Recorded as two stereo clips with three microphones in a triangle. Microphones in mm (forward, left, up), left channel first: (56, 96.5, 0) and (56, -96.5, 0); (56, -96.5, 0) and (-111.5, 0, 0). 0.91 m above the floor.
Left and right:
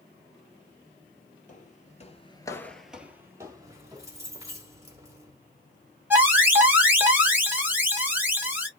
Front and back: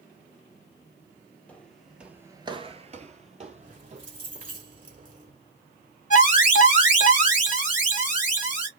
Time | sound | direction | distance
1.5 | footsteps | 50° left | 1.5 m
3.6 | keys jangling | 165° right | 2.5 m
6.1 | an alarm | 15° right | 2 m